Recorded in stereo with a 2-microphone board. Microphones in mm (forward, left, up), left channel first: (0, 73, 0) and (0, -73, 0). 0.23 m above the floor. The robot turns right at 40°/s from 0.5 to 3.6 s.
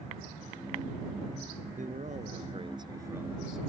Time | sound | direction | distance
1.8 | a man speaking | 75° right | ?